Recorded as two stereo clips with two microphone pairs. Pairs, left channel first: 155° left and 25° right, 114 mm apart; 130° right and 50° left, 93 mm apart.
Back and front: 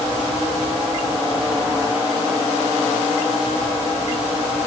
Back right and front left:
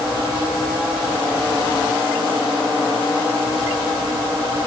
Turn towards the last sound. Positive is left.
No sound to turn to.